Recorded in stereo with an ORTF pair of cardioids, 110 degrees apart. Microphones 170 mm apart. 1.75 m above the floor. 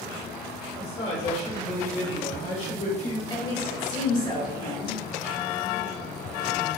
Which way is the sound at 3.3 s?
25° left.